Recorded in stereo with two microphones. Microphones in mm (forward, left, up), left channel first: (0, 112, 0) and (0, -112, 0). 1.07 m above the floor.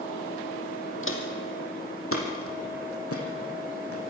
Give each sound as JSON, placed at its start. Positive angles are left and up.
{"t": 1.0, "sound": "footsteps", "side_deg": 60, "distance_m": 3.0}